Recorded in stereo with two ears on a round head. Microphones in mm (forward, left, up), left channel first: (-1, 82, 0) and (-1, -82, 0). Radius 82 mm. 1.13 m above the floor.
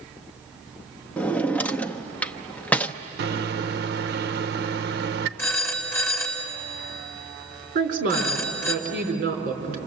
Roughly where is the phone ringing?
Centre.